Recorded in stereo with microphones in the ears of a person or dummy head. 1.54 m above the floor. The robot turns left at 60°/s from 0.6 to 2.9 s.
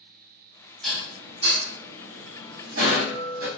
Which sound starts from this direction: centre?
Dishes clattering, at 0.8 s.